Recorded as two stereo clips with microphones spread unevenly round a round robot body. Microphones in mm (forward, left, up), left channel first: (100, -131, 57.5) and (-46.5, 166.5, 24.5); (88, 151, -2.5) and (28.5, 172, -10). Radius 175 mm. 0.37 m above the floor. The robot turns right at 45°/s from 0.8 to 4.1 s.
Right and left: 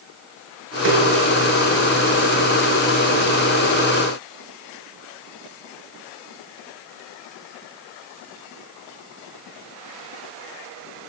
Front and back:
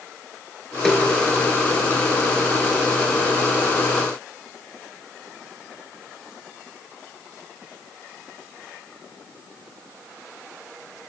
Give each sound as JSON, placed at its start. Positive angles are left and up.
{"t": 0.8, "sound": "a snare drum", "azimuth_deg": 60, "distance_m": 5.5}